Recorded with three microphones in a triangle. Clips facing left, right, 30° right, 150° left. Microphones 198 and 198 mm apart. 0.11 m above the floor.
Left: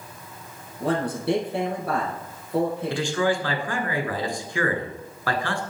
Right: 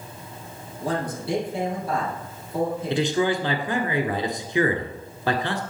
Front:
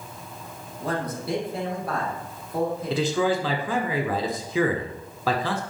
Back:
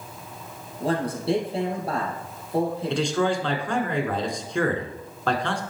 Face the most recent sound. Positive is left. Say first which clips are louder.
# right 4 dB, front 1 dB
turn(degrees=-110)